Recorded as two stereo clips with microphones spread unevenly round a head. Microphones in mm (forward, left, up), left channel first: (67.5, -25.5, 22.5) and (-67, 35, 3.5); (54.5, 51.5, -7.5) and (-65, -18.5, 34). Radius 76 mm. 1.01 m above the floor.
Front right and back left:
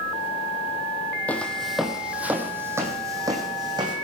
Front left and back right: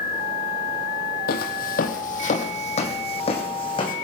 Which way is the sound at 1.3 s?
50° left.